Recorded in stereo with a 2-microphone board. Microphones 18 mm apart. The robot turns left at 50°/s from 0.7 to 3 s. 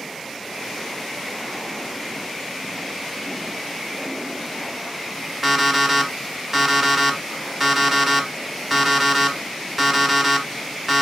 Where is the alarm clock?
10° right (ahead or behind), 0.9 m.